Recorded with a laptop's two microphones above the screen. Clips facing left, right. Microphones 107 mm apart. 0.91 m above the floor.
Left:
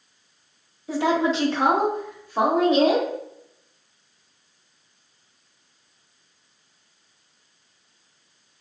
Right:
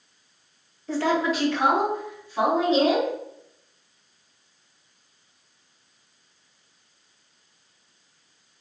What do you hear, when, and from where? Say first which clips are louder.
0.9 s a woman speaking: left 2 dB; 10° left (ahead or behind), 0.7 m; by 3.1 s 65° left (ahead or behind), 1.4 m